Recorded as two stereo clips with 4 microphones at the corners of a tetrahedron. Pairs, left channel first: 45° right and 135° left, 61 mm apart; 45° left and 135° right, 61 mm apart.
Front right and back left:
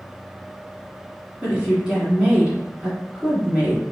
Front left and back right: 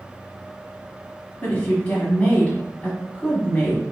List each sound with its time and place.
1.4 s a woman speaking: 85° left, 1.4 m